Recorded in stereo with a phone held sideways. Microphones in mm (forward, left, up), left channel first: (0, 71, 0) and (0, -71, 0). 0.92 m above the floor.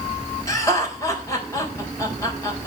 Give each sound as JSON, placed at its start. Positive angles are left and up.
{"t": 0.5, "sound": "laughter", "side_deg": 25, "distance_m": 4.0}